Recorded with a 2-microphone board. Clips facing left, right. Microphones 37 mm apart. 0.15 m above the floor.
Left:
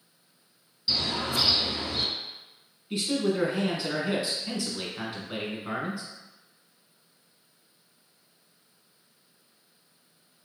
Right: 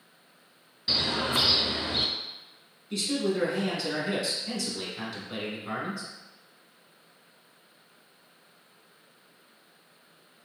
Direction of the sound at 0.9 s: 40° right (ahead or behind).